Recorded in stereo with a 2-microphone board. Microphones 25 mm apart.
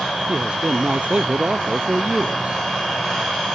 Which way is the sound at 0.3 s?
45° right (ahead or behind).